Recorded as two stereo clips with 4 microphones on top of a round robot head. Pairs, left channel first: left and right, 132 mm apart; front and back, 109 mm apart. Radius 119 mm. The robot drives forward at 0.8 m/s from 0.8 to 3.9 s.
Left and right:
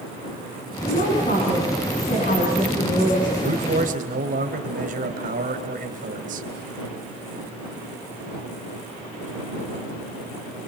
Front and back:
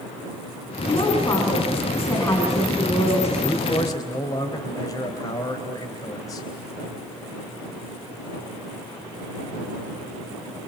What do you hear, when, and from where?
0.9 s a woman speaking: 50° left, 6.5 m; by 3.3 s 65° left, 5.5 m
3.4 s a man speaking: 60° right, 3.5 m; by 6.5 s 65° right, 3 m